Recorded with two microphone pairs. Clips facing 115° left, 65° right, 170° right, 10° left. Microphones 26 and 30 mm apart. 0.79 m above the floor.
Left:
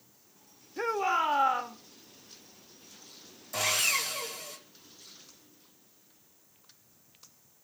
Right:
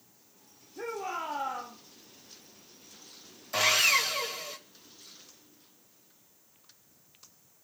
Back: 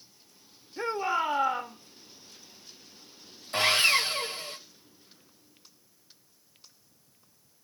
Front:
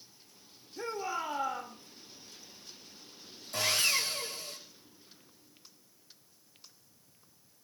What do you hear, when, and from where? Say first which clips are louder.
0.8 s a shout: left 7 dB, back 7 dB; 145° left, 2.5 m
3.5 s sawing: right 4 dB, back 7 dB; 130° right, 2.5 m